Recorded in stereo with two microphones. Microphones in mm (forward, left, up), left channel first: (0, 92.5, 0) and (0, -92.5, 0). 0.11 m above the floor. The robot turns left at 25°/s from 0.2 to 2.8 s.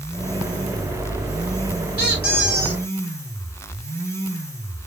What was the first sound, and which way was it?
A squeak, 60° right (ahead or behind).